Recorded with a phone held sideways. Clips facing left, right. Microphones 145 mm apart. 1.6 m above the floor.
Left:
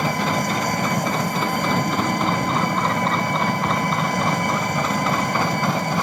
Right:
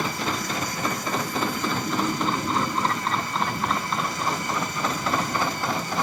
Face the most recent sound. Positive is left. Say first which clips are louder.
# left 6 dB
turn(degrees=60)  # may be behind; listen again after turning